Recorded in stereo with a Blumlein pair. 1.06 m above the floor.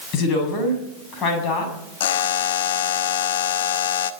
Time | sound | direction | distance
0.1 | a woman speaking | 35° left | 7 m
2.0 | a buzzer | 55° left | 1.0 m